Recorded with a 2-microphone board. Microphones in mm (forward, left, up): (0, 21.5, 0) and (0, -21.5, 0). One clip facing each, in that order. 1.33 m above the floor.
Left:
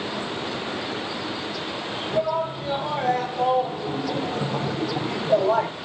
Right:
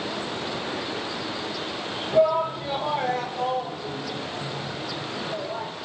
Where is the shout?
15° right (ahead or behind), 1.8 m; by 5.7 s 60° left (ahead or behind), 1.3 m.